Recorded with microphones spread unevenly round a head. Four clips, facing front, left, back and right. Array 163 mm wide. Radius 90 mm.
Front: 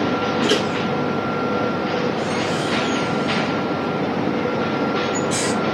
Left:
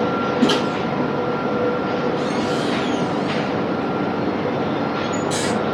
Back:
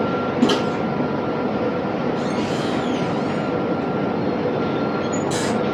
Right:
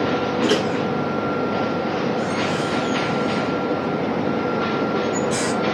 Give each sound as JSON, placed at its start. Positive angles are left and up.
{"t": 0.4, "sound": "a microwave", "azimuth_deg": 140, "distance_m": 8.0}